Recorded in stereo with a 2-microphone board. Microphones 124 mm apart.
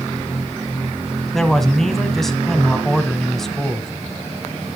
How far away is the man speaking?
About 1.0 m.